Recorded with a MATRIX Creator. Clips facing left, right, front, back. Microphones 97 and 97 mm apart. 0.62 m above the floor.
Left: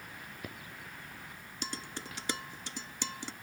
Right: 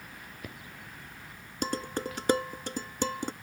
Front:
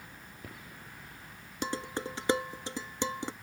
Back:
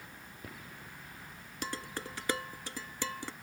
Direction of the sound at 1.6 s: 65° right.